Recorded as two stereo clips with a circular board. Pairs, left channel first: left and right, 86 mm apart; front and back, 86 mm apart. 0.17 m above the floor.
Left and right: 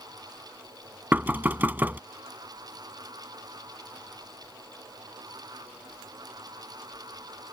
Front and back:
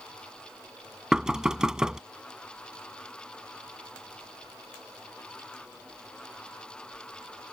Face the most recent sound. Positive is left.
turn(degrees=-110)